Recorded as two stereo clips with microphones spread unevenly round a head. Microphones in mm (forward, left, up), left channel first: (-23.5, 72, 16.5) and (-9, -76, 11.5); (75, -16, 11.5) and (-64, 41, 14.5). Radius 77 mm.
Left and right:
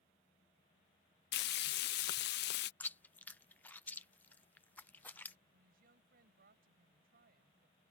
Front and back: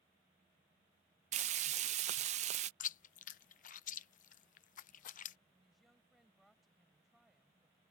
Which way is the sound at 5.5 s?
115° right.